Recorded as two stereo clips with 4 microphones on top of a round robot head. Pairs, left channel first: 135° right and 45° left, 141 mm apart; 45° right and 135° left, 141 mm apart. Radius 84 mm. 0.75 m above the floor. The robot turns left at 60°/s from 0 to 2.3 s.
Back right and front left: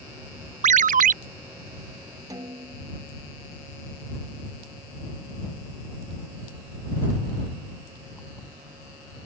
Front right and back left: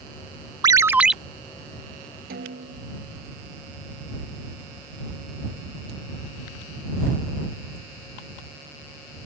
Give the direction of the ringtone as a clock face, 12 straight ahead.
9 o'clock.